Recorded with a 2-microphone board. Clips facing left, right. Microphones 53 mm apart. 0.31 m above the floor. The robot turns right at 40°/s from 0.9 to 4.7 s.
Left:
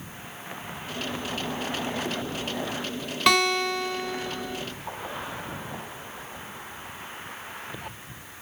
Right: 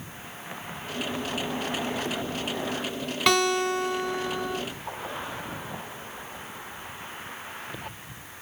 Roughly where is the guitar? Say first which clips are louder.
Left 1 dB; behind.